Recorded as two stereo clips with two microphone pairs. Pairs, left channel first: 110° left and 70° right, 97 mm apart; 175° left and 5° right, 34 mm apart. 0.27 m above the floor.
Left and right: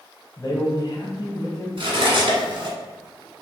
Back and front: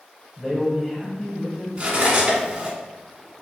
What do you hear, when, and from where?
0.4 s a man speaking: 100° left, 1.4 m
1.8 s cutlery clinking: 55° right, 1.5 m